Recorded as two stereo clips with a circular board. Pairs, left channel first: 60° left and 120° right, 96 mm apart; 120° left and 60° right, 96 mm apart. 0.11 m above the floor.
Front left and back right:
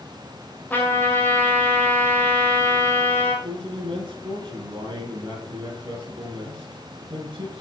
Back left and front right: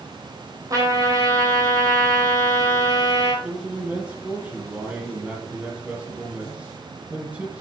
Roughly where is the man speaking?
Behind right.